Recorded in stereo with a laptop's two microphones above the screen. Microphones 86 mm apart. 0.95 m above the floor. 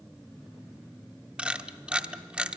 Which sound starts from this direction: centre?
A camera shutter, at 1.4 s.